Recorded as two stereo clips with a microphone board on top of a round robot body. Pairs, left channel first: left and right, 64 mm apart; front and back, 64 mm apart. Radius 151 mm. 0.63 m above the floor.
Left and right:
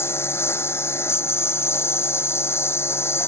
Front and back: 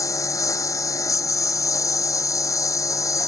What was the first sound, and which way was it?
A lawn mower, 35° left.